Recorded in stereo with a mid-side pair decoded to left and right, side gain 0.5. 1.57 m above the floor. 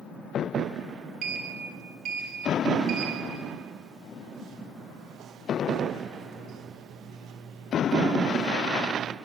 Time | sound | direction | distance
1.2 | a sliding door | 65° right | 2.5 m